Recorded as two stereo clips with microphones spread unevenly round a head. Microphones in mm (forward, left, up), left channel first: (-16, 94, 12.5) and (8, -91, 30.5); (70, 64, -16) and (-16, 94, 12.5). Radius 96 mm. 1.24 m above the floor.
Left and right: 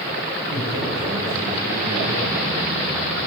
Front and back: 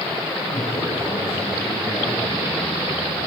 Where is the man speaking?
75° right, 6.5 m; by 3.3 s 60° right, 8.5 m.